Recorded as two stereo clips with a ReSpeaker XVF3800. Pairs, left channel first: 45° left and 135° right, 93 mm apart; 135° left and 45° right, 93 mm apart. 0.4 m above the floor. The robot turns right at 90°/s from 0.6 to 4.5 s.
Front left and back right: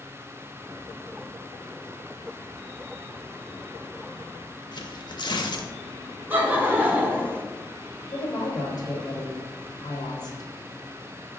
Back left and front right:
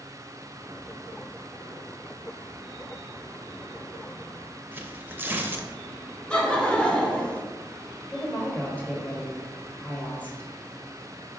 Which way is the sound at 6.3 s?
160° right.